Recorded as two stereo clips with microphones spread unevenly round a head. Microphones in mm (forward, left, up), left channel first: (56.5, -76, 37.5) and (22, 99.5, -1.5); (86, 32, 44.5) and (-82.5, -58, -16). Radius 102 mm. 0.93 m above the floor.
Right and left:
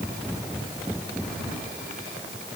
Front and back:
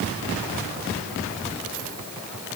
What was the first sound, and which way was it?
Only background noise.